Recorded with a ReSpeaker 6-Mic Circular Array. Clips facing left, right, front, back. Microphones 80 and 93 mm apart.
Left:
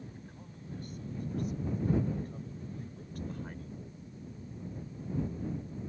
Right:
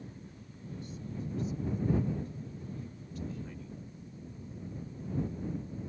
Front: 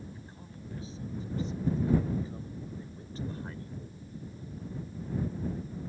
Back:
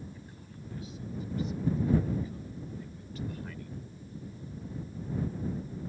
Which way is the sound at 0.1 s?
60° left.